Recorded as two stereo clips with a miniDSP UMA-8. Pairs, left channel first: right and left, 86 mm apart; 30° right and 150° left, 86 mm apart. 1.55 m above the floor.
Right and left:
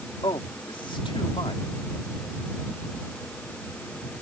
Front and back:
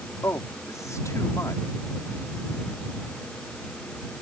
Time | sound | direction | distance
0.2 | a man speaking | 85° right | ?